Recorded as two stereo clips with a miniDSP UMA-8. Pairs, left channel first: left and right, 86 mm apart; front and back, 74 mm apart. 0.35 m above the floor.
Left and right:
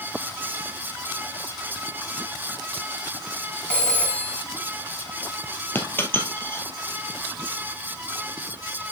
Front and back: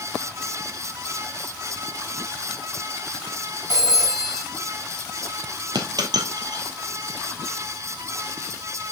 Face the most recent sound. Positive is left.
turn(degrees=155)